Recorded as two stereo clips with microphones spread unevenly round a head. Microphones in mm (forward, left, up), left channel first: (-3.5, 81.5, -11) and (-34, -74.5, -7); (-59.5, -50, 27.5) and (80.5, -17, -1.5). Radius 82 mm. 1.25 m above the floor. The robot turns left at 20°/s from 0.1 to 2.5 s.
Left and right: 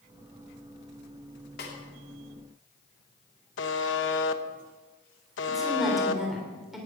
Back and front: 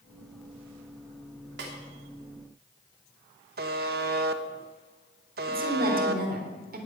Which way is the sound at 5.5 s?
15° right.